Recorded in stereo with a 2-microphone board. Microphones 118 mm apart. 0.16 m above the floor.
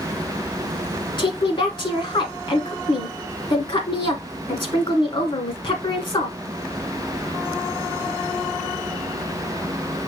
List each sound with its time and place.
1.2 s a woman speaking: 45° left (ahead or behind), 1.4 m